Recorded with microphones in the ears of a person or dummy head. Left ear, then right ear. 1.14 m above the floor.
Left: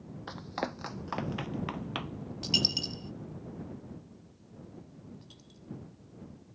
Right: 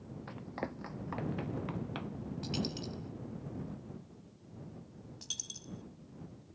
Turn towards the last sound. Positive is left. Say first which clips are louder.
# right 12 dB
turn(degrees=-60)  # may be behind; listen again after turning